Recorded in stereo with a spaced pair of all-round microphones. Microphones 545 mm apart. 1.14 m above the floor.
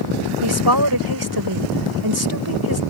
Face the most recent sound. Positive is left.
turn(degrees=-40)  # may be behind; listen again after turning